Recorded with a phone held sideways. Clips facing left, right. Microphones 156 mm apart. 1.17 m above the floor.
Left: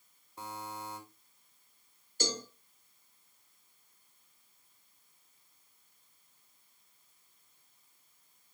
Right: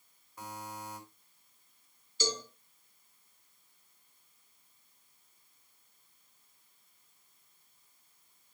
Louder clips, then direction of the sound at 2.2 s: Right 1 dB; 60° left (ahead or behind).